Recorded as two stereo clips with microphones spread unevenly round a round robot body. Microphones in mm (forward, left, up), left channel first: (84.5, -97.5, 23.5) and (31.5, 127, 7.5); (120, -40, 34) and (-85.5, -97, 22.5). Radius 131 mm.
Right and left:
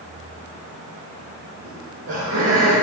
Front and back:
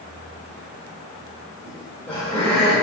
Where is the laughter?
100° left, 2.5 m.